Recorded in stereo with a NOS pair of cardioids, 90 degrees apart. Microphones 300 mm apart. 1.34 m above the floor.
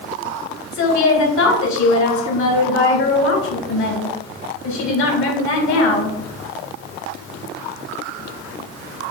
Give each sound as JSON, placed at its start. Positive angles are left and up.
{"t": 0.7, "sound": "a woman speaking", "azimuth_deg": 70, "distance_m": 1.8}